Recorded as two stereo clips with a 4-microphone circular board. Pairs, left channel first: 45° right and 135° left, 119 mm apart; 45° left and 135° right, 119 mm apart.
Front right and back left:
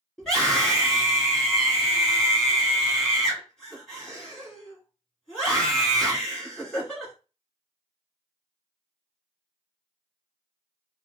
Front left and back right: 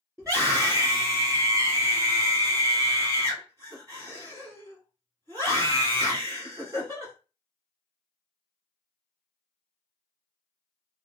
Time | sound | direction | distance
0.2 | a scream | 135° right | 1.6 m